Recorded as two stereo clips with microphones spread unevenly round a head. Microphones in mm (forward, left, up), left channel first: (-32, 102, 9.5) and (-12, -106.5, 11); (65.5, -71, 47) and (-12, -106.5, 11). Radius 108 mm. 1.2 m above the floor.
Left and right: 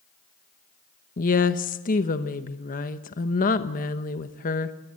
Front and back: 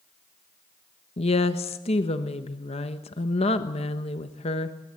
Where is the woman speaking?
40° left, 1.1 m.